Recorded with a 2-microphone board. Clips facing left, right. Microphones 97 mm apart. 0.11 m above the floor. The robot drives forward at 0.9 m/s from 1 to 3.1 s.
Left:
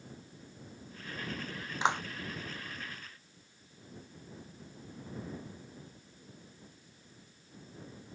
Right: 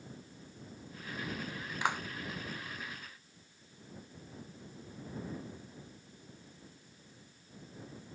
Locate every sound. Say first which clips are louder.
1.8 s a clap: left 4 dB; 25° left (ahead or behind); by 2.0 s 20° left (ahead or behind)